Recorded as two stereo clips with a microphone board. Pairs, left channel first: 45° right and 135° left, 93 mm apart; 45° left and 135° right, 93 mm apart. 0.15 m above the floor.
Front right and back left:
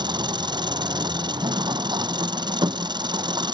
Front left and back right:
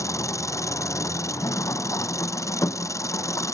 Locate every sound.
0.0 s an engine running: 100° left